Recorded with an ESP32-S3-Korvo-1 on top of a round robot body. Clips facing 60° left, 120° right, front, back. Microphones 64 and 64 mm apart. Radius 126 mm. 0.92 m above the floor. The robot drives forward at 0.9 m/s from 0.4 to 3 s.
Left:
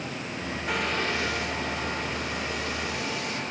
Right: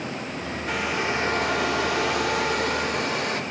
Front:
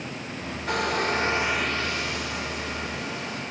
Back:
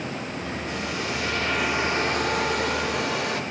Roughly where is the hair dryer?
Ahead right.